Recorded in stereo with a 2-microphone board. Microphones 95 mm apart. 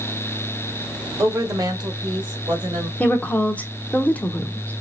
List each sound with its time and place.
1.2 s a woman speaking: 35° right (ahead or behind), 1.6 m; by 2.9 s 60° right (ahead or behind), 2 m
3.0 s a woman speaking: 15° left (ahead or behind), 0.9 m